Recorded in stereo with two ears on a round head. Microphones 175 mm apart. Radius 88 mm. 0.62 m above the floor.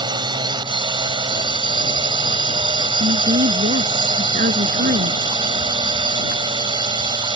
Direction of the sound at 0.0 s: 25° right (ahead or behind).